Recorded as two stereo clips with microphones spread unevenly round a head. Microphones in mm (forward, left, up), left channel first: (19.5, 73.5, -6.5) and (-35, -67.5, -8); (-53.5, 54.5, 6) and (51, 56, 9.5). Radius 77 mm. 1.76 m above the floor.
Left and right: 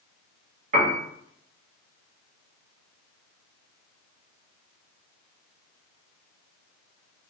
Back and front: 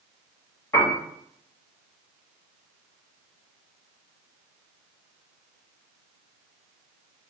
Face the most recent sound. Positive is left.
turn(degrees=-115)